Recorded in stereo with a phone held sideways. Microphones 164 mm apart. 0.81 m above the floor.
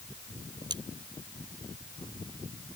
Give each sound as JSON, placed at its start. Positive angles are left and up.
{"t": 0.7, "sound": "cutlery clinking", "side_deg": -25}